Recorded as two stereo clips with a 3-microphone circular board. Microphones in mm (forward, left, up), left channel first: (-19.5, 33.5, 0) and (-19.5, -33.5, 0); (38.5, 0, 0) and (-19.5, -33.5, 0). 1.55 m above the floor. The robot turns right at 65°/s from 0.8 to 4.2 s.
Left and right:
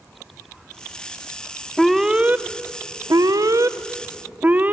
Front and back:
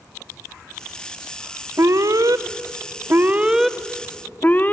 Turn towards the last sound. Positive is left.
turn(degrees=-30)